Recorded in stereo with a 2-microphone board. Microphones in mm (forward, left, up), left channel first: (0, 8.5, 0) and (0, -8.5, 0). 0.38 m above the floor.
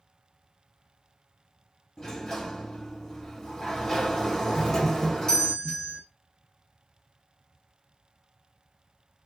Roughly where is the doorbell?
Left.